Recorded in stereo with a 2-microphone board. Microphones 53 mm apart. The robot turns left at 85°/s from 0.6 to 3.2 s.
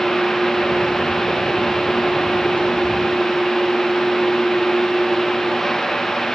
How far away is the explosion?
No explosion in this recording.